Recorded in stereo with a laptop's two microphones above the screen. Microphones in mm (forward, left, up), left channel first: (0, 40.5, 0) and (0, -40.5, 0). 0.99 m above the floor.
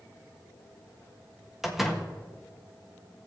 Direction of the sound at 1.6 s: 5° right (ahead or behind).